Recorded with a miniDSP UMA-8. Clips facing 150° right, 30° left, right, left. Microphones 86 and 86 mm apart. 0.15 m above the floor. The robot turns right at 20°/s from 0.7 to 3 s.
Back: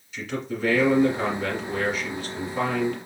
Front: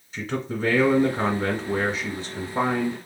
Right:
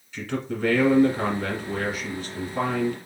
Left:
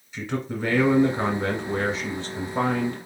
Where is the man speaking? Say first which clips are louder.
Front 2 dB, even; 30° left, 1.5 m; by 3.0 s 75° left, 1.5 m.